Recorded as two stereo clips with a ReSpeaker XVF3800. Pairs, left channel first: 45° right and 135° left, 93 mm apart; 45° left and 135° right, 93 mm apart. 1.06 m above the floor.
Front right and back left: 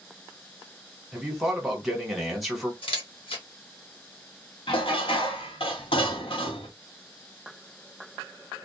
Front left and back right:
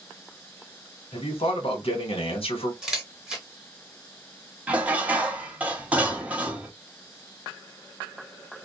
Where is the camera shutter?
50° right, 1.1 m.